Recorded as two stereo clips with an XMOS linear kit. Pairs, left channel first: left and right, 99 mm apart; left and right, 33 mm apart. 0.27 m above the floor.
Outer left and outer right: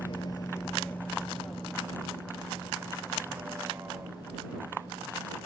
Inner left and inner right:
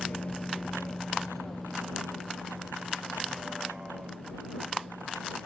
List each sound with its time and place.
0.0 s a vehicle: 55° left (ahead or behind); by 5.5 s 25° right (ahead or behind)